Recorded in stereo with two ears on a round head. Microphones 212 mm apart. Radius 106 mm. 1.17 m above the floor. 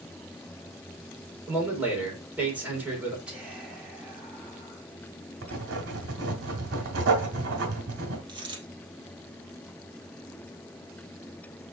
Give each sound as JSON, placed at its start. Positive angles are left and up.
{"t": 1.5, "sound": "a man speaking", "side_deg": -5, "distance_m": 3.5}
{"t": 3.3, "sound": "whispering", "side_deg": -5, "distance_m": 3.5}
{"t": 5.4, "sound": "writing", "side_deg": -50, "distance_m": 2.0}
{"t": 8.3, "sound": "a dropped coin", "side_deg": -20, "distance_m": 3.0}